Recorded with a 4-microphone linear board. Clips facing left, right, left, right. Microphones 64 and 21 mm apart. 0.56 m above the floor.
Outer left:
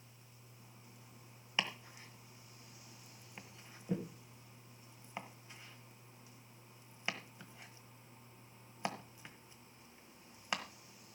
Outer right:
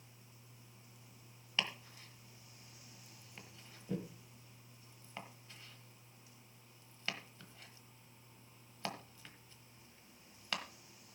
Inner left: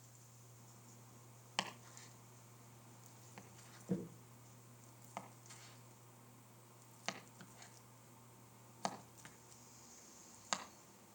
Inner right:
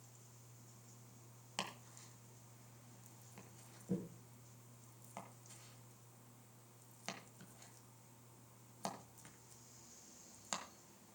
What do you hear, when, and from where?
1.6 s chopping: 15° left (ahead or behind), 1.3 m